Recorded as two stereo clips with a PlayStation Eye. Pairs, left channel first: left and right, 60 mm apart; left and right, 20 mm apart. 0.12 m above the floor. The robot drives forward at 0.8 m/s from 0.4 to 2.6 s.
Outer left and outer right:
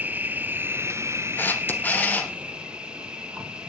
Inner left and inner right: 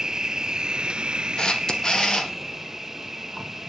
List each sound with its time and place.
0.0 s an insect: 30° right (ahead or behind), 0.7 m; by 3.7 s 15° right (ahead or behind), 1.3 m
1.4 s a camera shutter: 35° left (ahead or behind), 1.8 m; by 2.3 s 25° left (ahead or behind), 2.5 m